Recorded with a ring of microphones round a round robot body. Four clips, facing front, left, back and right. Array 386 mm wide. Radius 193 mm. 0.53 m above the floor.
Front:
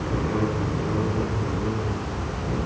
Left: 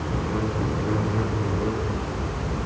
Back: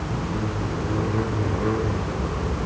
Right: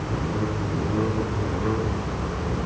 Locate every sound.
Only background noise.